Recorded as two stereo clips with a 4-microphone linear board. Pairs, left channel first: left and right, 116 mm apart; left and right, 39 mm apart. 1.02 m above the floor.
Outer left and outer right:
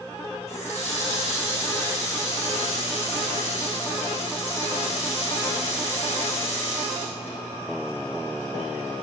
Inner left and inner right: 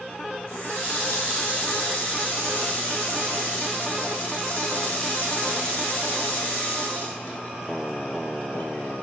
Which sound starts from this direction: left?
A running tap, at 0.5 s.